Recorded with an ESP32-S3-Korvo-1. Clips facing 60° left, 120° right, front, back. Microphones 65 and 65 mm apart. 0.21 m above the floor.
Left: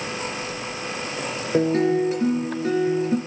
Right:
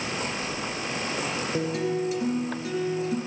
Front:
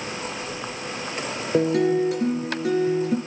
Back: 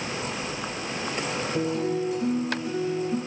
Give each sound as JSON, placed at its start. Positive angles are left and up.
{"t": 1.5, "sound": "a guitar", "azimuth_deg": 10, "distance_m": 4.0}